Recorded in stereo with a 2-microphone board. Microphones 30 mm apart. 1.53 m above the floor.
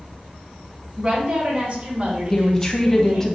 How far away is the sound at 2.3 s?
About 0.6 m.